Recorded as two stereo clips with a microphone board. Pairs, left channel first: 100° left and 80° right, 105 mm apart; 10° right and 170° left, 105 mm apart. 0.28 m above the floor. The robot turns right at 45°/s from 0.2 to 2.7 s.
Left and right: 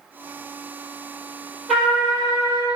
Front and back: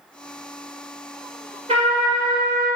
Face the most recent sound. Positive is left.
turn(degrees=-125)